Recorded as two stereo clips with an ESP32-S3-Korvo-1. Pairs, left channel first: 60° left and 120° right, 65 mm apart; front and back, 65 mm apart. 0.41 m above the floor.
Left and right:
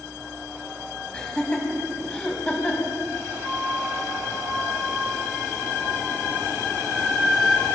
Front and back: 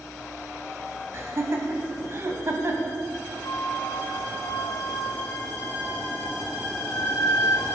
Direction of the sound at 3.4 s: 30° right.